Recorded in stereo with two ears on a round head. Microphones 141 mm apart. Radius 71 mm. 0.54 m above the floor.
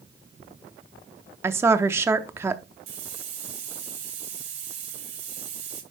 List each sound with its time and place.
1.4 s a woman speaking: 15° right (ahead or behind), 0.6 m
2.9 s a hiss: 45° right (ahead or behind), 2.5 m